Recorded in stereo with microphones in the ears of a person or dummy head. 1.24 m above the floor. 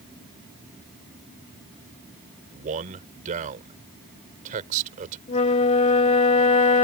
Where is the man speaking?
45° right (ahead or behind).